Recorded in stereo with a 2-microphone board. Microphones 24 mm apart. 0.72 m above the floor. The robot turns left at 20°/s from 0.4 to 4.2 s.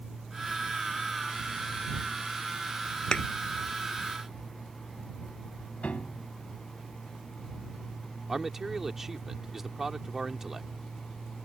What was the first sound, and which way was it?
A thud, 45° left (ahead or behind).